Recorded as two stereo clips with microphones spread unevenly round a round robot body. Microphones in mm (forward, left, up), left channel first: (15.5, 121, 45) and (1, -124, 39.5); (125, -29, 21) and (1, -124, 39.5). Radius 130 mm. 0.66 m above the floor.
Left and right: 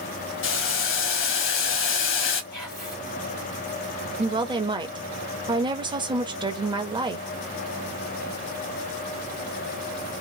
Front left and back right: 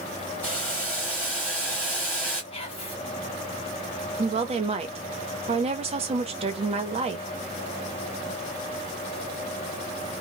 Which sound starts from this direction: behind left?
Boiling, at 0.4 s.